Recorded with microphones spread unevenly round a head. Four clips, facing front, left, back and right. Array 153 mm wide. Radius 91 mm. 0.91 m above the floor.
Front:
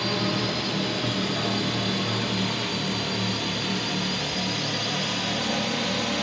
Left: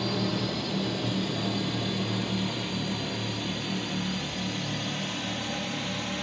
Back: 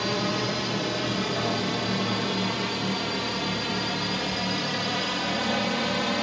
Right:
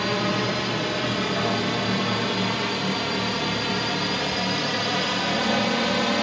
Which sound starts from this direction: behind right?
A drone, at 0.0 s.